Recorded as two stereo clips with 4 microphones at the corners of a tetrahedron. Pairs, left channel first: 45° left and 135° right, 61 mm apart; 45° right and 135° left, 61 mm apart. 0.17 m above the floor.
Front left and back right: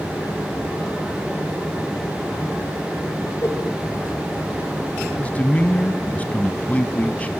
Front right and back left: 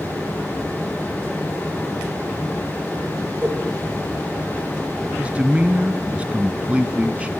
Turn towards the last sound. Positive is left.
turn(degrees=85)